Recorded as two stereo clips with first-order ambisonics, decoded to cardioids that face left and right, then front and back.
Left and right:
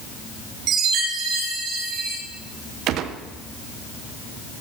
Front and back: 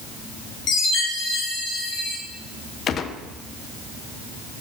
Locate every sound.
0.7 s a chime: 50° right, 3 m
2.9 s a gunshot: 55° right, 0.7 m